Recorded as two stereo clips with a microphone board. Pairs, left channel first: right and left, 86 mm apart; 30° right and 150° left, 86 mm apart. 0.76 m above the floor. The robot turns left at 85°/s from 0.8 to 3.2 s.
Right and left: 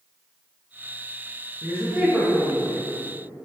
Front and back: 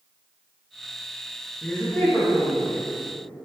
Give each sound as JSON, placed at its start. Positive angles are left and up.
{"t": 1.6, "sound": "a woman speaking", "azimuth_deg": 55, "distance_m": 0.8}